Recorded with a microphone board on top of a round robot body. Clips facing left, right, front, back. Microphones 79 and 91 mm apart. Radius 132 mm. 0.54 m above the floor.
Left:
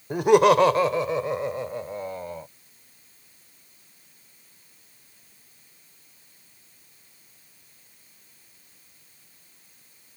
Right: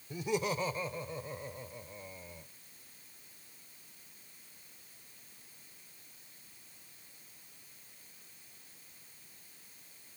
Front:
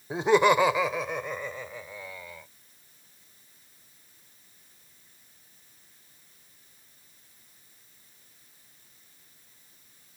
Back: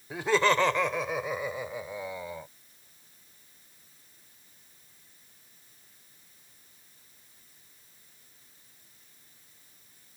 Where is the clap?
I don't hear a clap.